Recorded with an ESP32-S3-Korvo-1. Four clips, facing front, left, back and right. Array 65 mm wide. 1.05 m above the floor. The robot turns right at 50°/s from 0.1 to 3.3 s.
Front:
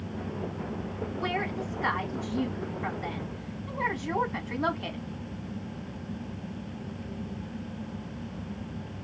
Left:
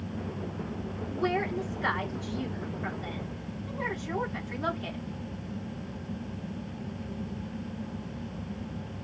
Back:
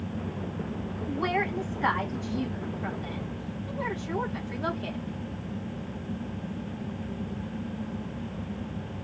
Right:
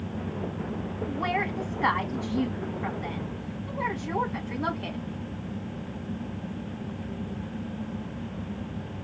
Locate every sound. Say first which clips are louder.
1.1 s a woman speaking: even, back 4 dB; 140° right, 2 m; by 5.0 s 30° right, 2 m